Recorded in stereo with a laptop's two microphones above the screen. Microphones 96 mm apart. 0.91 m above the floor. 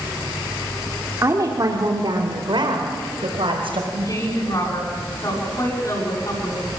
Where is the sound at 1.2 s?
35° right (ahead or behind), 3 m; by 3.8 s 70° right (ahead or behind), 5.5 m.